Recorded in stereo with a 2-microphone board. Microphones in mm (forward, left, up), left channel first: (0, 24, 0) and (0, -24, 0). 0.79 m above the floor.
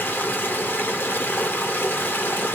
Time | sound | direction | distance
0.0 | running water | 45° left (ahead or behind) | 0.8 m